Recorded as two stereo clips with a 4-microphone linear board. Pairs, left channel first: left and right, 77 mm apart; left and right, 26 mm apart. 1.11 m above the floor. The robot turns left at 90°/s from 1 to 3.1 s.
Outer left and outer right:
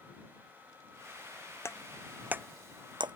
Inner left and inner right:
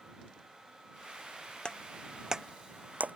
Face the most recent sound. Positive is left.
turn(degrees=-75)  # may be behind; listen again after turning